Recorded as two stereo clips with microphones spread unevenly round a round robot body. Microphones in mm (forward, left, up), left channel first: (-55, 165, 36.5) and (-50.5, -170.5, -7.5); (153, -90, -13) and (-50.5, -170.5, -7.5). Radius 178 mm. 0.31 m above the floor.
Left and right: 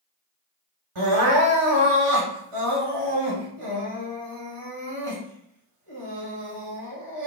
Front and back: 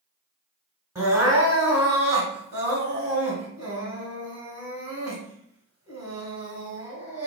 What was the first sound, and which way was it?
Crying, 80° right.